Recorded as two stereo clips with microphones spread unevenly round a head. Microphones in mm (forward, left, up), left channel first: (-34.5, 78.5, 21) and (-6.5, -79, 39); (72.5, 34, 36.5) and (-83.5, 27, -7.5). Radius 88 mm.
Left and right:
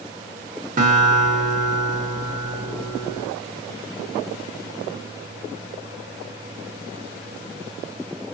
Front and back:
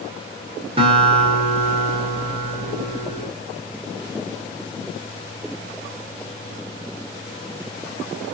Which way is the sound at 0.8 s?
120° right.